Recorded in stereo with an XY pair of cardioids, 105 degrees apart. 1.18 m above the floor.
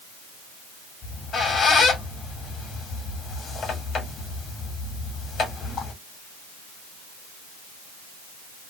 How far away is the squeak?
About 1.5 m.